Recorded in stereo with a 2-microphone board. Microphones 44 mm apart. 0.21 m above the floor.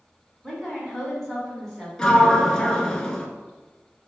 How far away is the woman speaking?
About 1.5 m.